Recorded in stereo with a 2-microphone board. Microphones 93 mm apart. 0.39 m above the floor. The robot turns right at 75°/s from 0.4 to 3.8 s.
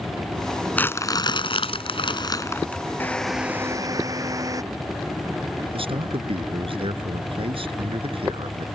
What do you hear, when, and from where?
0.8 s crumpling: 15° left; by 2.8 s 170° left
3.0 s a drill: 160° left; by 4.6 s 140° right
5.7 s a man speaking: 75° right (ahead or behind)